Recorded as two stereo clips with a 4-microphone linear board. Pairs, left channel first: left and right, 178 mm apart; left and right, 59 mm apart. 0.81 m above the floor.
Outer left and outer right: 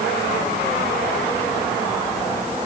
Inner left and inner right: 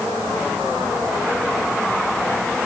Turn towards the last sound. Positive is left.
No sound to turn to.